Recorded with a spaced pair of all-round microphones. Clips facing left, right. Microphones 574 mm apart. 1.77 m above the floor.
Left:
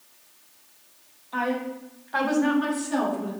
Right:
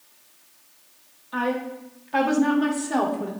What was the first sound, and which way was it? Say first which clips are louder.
A woman speaking: right 1 dB; 35° right (ahead or behind).